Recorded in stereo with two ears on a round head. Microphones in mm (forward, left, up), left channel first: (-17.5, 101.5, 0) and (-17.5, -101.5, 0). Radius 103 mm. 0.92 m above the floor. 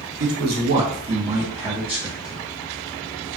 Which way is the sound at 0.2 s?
55° right (ahead or behind).